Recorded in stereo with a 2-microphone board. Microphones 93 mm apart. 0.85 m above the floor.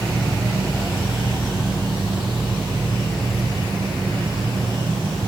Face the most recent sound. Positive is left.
turn(degrees=-45)  # may be behind; listen again after turning